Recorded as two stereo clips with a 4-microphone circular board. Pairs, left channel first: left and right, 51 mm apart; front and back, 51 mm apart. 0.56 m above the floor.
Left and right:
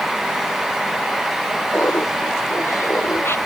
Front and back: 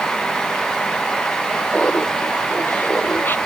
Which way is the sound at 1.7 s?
55° left.